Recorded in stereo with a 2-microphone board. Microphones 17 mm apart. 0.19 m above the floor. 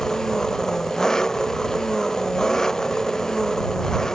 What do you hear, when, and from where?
0.0 s an engine running: 40° left (ahead or behind)